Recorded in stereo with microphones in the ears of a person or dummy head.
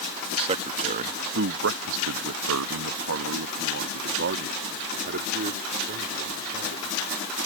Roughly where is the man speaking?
Right.